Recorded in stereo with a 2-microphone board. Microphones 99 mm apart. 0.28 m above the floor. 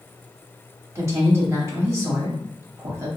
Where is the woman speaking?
30° right (ahead or behind), 1.1 m.